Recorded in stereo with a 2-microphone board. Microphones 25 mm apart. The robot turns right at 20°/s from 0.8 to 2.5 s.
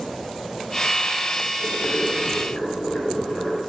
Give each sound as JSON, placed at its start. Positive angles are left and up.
{"t": 1.6, "sound": "boiling", "side_deg": 15, "distance_m": 4.0}